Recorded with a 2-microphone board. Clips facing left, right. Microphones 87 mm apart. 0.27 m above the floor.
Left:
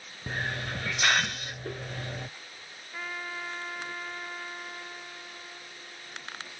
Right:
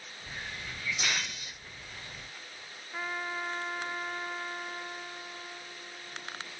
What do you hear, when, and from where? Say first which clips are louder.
0.3 s a hiss: left 9 dB; 75° left (ahead or behind)
2.9 s a trumpet: right 2 dB; 15° right (ahead or behind)